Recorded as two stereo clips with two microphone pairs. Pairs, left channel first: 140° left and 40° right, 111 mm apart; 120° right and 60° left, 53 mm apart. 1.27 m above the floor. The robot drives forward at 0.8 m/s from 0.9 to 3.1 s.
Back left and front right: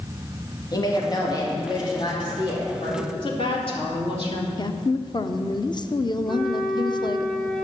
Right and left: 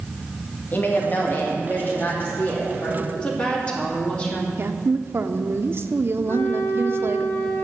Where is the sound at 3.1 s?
175° left, 2.5 m.